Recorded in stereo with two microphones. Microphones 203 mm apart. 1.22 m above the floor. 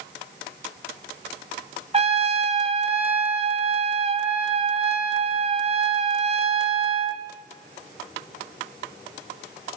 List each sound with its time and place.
1.9 s a trumpet: 30° right (ahead or behind), 1.8 m